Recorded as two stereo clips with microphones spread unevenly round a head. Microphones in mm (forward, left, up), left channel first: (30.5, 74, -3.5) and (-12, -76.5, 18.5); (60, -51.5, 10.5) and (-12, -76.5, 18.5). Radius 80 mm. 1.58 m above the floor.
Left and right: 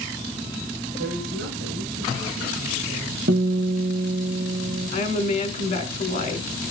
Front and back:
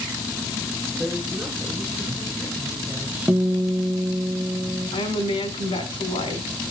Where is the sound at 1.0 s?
85° right, 8.5 m; by 3.8 s 80° right, 7 m.